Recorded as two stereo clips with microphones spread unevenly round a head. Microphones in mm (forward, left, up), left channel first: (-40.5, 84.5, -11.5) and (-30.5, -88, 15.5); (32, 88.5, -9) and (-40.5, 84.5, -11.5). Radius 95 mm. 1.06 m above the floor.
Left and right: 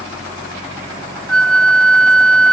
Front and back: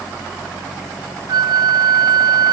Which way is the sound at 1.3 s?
Straight behind.